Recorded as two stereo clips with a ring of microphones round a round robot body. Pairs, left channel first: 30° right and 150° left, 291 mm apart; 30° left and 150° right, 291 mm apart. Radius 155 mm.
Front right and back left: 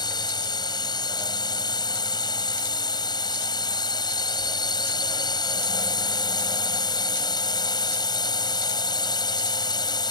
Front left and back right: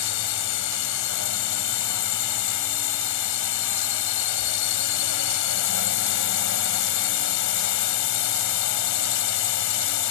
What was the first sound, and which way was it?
A drone, 45° left.